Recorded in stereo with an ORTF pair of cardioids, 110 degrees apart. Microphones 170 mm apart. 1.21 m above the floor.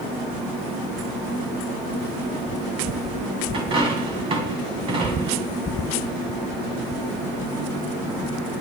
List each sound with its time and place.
3.5 s a dropped coin: 35° right, 4 m